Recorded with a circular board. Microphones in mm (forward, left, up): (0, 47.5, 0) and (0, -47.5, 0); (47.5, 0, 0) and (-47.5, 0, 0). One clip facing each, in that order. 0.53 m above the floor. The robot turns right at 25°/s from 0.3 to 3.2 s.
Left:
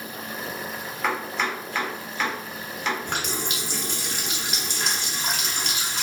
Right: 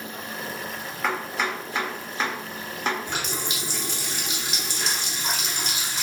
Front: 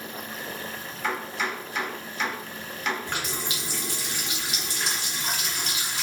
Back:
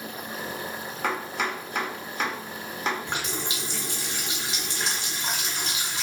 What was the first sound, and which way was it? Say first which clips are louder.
Chopping: even, back 1 dB; straight behind.